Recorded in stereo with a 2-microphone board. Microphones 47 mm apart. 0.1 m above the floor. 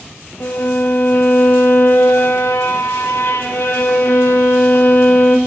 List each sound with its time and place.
0.4 s a violin: 50° left (ahead or behind), 5.5 m